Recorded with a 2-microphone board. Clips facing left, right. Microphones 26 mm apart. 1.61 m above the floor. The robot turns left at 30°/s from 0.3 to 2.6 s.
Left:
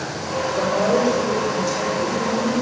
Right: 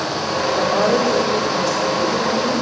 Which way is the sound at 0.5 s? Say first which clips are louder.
Right 1 dB; 90° right.